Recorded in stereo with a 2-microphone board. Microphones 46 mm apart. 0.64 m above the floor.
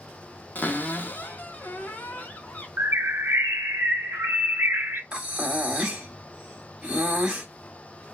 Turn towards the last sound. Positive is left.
turn(degrees=-10)  # may be behind; listen again after turning